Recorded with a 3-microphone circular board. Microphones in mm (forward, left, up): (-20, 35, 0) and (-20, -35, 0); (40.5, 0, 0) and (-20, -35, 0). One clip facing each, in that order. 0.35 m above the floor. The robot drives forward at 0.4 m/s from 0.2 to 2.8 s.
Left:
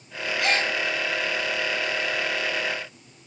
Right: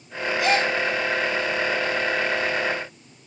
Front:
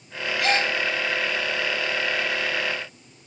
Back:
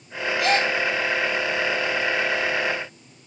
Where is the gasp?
50° left, 2.5 m; by 0.7 s 55° left, 2.5 m.